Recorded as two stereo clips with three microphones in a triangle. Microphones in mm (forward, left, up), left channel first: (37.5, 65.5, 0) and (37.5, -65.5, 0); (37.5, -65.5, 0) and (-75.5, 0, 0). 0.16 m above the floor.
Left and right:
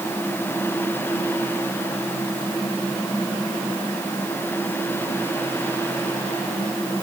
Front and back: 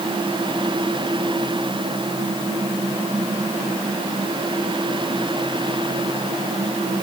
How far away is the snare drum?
I don't hear a snare drum.